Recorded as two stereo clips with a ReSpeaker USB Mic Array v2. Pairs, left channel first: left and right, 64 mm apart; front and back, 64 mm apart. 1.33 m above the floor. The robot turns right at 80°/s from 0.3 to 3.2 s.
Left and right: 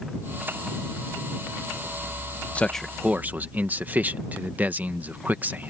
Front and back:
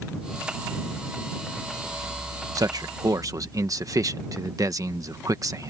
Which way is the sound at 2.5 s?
155° left.